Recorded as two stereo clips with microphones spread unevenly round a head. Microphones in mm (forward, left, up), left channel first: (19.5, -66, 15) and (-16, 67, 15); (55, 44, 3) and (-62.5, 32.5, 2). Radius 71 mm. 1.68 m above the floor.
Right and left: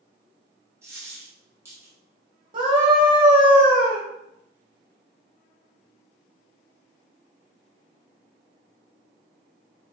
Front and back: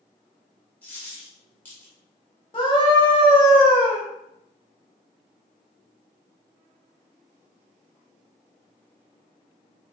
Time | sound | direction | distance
0.8 | a dropped coin | 60° left | 1.0 m
2.5 | a scream | 60° left | 0.9 m